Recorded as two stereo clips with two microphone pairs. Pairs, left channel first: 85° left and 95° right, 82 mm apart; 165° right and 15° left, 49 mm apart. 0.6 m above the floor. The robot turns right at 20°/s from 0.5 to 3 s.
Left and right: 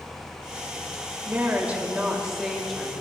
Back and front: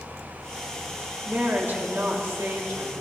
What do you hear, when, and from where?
1.2 s a woman speaking: 35° right, 2.5 m; by 2.9 s straight ahead, 2.5 m